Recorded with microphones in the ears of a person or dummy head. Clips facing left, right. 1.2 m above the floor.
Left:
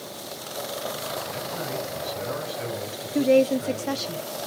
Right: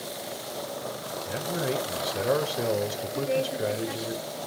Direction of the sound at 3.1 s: 65° left (ahead or behind).